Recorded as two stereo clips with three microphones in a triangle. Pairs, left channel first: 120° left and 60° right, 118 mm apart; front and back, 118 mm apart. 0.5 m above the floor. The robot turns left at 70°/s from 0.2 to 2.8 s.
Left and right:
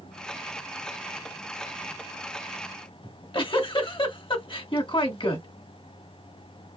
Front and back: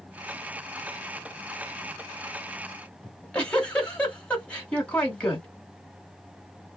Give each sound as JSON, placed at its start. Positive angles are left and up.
{"t": 3.0, "sound": "a giggle", "azimuth_deg": 80, "distance_m": 1.5}